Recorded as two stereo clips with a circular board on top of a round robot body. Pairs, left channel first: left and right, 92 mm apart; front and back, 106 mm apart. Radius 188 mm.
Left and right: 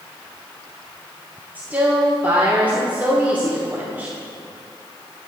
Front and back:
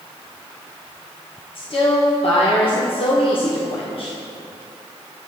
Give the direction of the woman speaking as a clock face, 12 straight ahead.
1 o'clock.